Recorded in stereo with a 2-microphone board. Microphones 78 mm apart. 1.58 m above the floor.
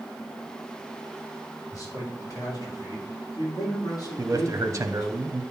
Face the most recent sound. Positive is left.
turn(degrees=-40)  # may be behind; listen again after turning